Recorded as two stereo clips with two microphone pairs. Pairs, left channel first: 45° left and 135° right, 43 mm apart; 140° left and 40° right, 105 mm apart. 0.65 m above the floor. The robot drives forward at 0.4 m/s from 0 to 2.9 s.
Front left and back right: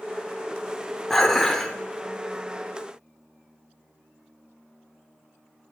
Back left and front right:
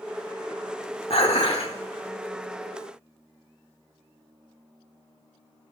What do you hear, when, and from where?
1.1 s dishes clattering: 130° left, 1.1 m; by 1.7 s 140° left, 1.3 m